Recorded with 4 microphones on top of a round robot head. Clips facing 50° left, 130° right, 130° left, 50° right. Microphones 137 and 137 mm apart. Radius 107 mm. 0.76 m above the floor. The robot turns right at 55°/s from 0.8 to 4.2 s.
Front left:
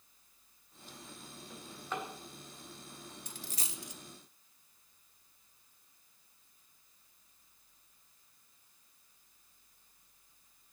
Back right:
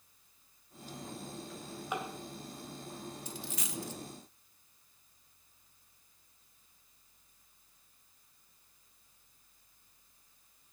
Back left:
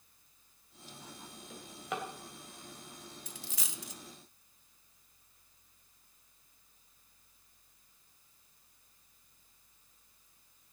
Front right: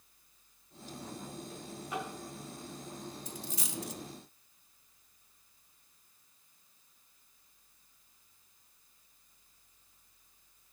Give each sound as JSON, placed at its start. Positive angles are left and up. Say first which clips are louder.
{"t": 1.5, "sound": "a drawer", "louder": "back right 1 dB, back left 1 dB", "azimuth_deg": 130, "distance_m": 3.0}
{"t": 3.3, "sound": "a dropped coin", "louder": "back right 5 dB, front right 6 dB", "azimuth_deg": 95, "distance_m": 0.8}